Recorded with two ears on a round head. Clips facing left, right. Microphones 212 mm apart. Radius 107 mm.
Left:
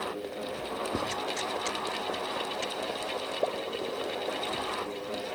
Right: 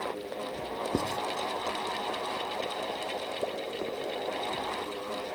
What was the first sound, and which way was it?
Writing, 25° right (ahead or behind).